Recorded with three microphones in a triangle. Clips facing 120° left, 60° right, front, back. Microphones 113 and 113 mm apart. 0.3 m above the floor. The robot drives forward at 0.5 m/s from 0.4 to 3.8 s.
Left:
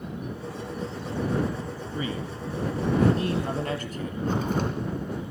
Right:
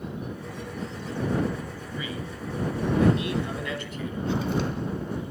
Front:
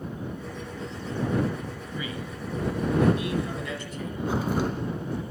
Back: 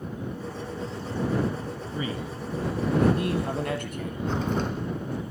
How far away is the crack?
About 3.5 m.